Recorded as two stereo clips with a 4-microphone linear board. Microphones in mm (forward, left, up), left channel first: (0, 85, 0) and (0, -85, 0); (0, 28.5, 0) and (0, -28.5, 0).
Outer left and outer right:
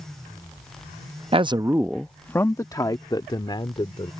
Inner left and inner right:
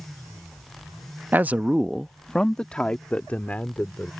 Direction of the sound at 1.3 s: 35° right (ahead or behind).